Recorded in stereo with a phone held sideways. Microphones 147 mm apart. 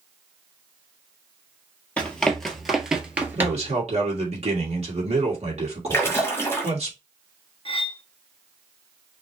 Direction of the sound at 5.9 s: 15° left (ahead or behind).